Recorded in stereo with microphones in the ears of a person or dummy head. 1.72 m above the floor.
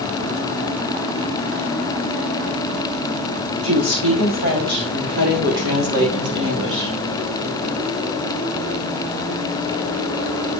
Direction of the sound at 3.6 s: 45° right (ahead or behind).